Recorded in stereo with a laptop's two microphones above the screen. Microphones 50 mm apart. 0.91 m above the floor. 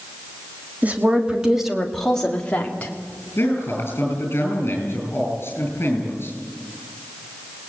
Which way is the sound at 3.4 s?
50° left (ahead or behind).